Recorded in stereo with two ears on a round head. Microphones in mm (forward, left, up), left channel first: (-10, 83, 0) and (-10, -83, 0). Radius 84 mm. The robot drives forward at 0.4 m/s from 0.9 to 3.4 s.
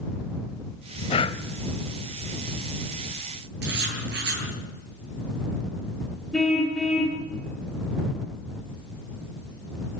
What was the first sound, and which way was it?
Breathing, 30° left (ahead or behind).